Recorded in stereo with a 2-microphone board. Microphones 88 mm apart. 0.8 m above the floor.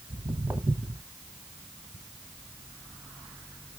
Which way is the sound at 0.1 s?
15° right (ahead or behind).